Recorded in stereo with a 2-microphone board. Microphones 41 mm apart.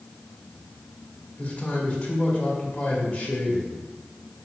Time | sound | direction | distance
1.4 | a man speaking | 35° left (ahead or behind) | 2 m